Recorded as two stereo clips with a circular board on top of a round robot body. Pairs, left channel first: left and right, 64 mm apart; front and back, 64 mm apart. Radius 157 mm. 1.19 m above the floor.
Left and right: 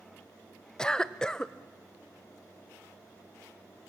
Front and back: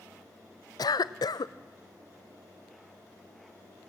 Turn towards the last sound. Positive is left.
turn(degrees=10)